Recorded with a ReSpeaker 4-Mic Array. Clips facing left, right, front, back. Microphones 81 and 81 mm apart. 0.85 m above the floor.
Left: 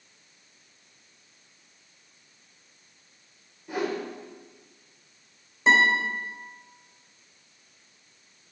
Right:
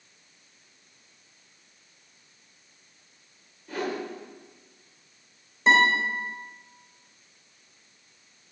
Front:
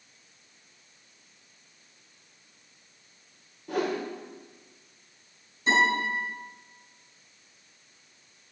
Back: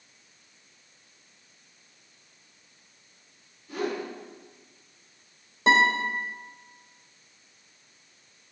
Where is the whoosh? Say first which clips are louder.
Left 2 dB, front 2 dB; 15° left, 1.8 m.